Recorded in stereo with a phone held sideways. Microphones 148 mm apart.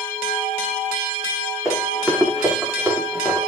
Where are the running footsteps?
Centre (ahead or behind), 9 m; by 3.4 s 15° right (ahead or behind), 9.5 m.